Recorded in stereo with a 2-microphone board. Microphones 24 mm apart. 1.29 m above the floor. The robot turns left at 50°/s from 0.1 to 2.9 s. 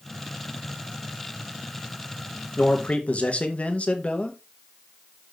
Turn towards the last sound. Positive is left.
turn(degrees=60)  # may be behind; listen again after turning